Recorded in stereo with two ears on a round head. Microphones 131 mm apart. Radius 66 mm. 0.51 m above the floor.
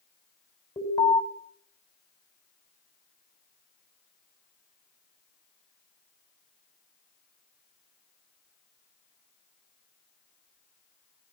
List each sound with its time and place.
0.8 s an alarm: 25° left (ahead or behind), 5.5 m